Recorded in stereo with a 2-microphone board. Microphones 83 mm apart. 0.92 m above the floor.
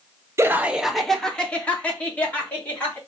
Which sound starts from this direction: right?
Laughter, at 0.4 s.